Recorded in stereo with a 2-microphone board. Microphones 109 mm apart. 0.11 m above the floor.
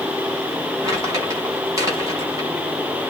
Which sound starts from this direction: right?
Crumpling, at 0.8 s.